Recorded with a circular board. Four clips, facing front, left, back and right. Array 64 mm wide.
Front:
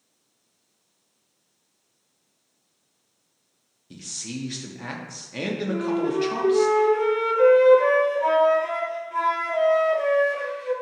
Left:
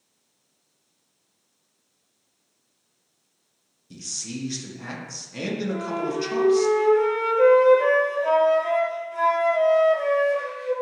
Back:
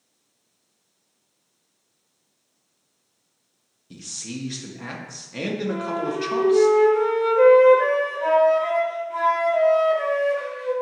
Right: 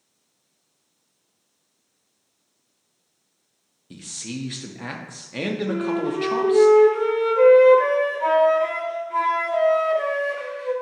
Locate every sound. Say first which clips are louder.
3.9 s a man speaking: right 2 dB, even; 85° right, 0.6 m
5.7 s a flute: right 4 dB, front 4 dB; 100° right, 1.9 m